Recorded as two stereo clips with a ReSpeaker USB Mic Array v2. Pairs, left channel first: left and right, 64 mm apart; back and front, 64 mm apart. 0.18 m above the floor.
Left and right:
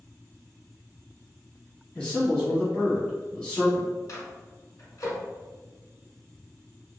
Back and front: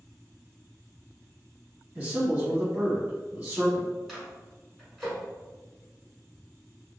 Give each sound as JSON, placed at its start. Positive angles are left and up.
{"t": 1.9, "sound": "a man speaking", "azimuth_deg": 35, "distance_m": 1.4}
{"t": 4.1, "sound": "a microwave", "azimuth_deg": 90, "distance_m": 1.3}